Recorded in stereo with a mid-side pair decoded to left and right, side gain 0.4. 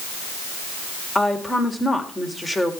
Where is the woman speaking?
15° left, 4 m.